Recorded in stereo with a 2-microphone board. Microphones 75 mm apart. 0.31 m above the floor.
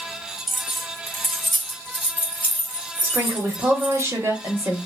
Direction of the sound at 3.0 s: 35° right (ahead or behind).